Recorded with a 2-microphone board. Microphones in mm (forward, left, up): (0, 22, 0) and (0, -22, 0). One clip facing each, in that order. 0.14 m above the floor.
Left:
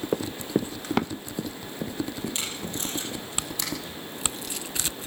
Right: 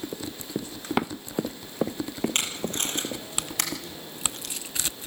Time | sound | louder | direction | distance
0.1 | running footsteps | left 7 dB | 60° left (ahead or behind) | 1.1 m
2.4 | tape being pulled | right 3 dB | 60° right (ahead or behind) | 4.5 m